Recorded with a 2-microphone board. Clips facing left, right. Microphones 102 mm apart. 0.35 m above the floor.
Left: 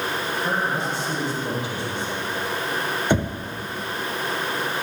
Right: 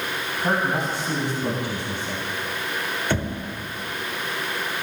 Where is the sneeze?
No sneeze in this recording.